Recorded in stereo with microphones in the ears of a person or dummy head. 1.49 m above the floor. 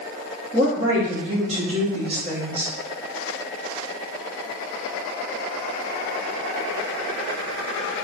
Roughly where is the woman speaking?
Right.